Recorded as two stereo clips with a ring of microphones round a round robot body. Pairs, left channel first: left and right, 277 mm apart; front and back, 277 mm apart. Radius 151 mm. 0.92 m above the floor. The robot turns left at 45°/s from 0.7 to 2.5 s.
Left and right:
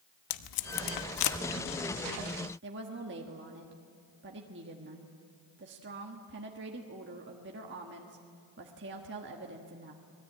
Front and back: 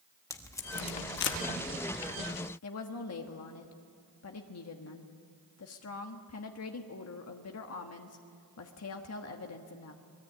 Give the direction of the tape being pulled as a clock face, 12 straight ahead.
9 o'clock.